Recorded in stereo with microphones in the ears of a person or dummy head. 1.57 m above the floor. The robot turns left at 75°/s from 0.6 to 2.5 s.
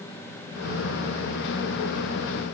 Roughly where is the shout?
I don't hear a shout.